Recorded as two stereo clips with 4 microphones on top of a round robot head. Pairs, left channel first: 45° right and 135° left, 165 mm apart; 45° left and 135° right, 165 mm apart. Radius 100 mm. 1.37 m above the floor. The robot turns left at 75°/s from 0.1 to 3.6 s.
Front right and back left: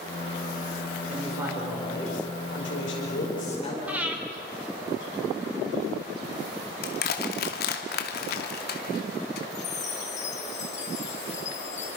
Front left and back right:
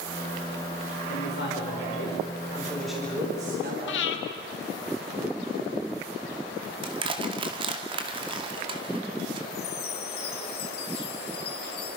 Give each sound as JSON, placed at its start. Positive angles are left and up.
{"t": 1.1, "sound": "a man speaking", "azimuth_deg": 90, "distance_m": 5.0}
{"t": 3.9, "sound": "breathing", "azimuth_deg": 55, "distance_m": 2.5}
{"t": 6.8, "sound": "crushing", "azimuth_deg": -75, "distance_m": 2.5}
{"t": 9.5, "sound": "a chime", "azimuth_deg": 10, "distance_m": 4.0}